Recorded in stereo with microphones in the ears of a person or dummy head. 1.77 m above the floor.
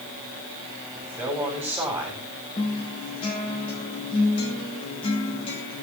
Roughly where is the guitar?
Left.